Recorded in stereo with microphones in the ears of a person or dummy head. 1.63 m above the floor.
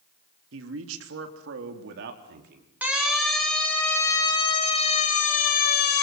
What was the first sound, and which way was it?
A man speaking, 80° right.